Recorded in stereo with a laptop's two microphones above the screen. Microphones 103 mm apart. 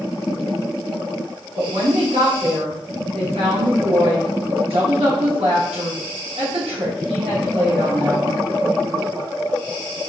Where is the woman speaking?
75° right (ahead or behind), 1.1 m.